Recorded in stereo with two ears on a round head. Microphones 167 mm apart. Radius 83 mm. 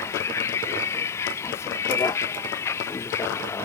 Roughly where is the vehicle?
Centre.